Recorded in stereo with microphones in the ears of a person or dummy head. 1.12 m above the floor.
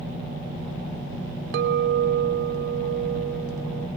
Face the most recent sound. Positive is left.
turn(degrees=-60)  # may be behind; listen again after turning